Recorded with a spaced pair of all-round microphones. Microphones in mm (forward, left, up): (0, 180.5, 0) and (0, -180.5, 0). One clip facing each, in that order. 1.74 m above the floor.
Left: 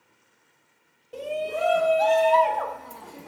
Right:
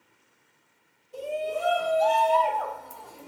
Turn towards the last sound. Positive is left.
turn(degrees=75)  # may be behind; listen again after turning